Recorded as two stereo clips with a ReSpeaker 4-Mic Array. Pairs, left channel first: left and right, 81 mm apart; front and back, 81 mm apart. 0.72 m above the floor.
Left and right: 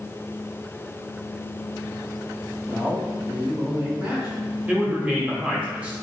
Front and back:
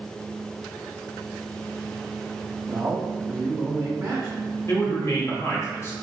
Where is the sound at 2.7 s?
140° right, 1.4 m.